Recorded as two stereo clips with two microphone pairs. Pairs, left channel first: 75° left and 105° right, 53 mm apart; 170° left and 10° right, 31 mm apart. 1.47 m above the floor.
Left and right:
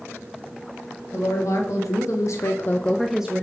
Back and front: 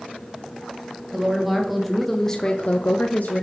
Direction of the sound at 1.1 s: 65° left.